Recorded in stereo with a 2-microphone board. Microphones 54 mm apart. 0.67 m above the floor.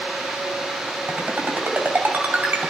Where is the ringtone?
45° right (ahead or behind), 2.5 m.